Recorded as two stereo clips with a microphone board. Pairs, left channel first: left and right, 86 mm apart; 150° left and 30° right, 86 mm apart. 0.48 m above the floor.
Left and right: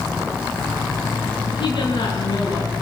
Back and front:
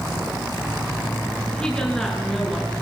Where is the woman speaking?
70° left, 6 m; by 2.7 s 60° left, 7 m.